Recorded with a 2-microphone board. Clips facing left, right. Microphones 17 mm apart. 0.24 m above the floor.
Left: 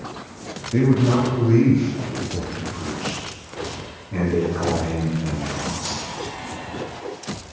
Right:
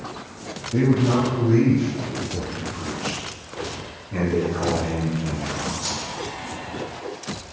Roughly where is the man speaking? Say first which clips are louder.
Left 1 dB; left.